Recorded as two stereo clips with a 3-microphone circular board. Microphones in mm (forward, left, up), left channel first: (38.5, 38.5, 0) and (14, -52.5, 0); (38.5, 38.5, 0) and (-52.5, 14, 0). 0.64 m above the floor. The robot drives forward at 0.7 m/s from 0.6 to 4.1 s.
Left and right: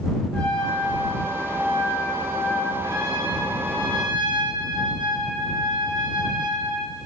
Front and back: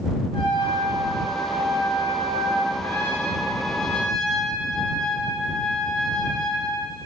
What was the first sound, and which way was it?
A trumpet, straight ahead.